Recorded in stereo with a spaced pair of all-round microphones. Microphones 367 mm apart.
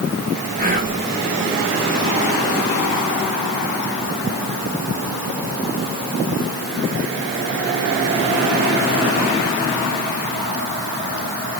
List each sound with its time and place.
0.6 s whispering: 25° right (ahead or behind), 2 m